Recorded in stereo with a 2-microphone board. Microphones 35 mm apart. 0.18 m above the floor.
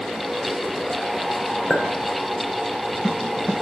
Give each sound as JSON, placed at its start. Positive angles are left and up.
{"t": 1.7, "sound": "a clink", "side_deg": 35, "distance_m": 2.0}